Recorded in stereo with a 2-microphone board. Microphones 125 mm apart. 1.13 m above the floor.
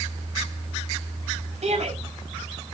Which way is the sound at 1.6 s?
65° right (ahead or behind).